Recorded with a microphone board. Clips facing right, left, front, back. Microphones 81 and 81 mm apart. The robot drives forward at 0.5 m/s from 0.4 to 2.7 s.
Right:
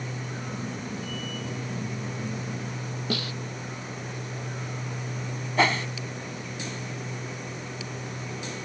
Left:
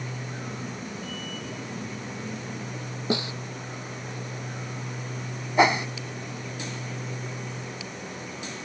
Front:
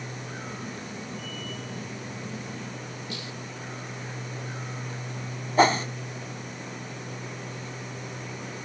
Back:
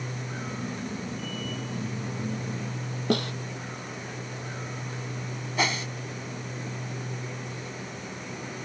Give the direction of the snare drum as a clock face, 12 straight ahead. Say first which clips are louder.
Left 4 dB, back 17 dB; 7 o'clock.